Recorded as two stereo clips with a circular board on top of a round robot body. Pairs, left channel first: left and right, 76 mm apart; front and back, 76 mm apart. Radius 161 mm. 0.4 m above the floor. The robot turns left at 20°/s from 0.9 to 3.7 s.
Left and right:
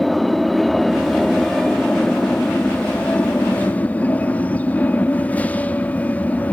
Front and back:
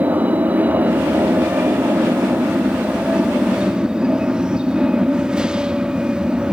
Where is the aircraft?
175° left; by 6.5 s 120° left.